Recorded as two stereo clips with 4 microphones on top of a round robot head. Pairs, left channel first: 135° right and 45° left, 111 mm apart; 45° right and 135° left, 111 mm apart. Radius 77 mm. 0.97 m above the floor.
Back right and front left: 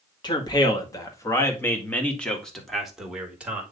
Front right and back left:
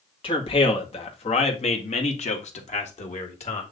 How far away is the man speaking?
About 2 m.